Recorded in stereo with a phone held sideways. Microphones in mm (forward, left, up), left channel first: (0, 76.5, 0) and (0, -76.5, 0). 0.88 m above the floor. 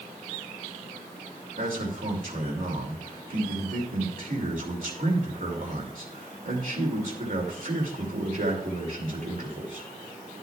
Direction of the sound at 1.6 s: 65° right (ahead or behind).